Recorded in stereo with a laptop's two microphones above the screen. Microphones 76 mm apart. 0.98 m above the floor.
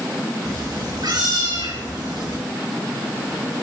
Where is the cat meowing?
60° right (ahead or behind), 6 m; by 2.4 s 70° right (ahead or behind), 6.5 m.